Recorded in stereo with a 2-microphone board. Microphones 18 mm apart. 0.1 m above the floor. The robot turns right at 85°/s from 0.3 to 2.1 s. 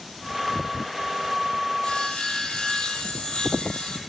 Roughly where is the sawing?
Left.